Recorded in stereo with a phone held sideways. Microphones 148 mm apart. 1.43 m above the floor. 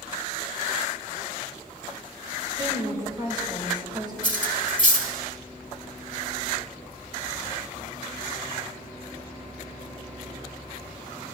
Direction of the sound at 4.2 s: 60° left (ahead or behind).